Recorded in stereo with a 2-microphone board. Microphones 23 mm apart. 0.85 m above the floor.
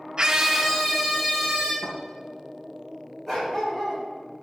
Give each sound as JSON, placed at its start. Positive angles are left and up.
{"t": 0.2, "sound": "a scream", "side_deg": -40, "distance_m": 0.7}
{"t": 1.8, "sound": "a thud", "side_deg": 40, "distance_m": 3.0}
{"t": 3.3, "sound": "a dog barking", "side_deg": 10, "distance_m": 2.0}